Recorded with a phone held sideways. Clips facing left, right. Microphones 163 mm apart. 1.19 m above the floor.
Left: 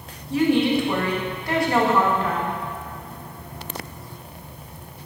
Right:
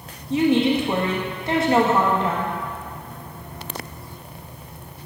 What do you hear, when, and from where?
0.3 s a woman speaking: 20° right (ahead or behind), 1.3 m